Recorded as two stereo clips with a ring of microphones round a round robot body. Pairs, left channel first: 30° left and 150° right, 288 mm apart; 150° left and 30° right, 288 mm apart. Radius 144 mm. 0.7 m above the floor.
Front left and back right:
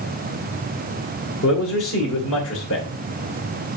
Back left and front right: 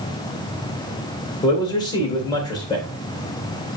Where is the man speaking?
75° left, 3 m.